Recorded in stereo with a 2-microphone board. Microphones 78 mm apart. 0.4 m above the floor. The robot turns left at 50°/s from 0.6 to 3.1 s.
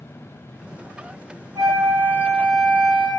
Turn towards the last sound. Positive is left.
turn(degrees=160)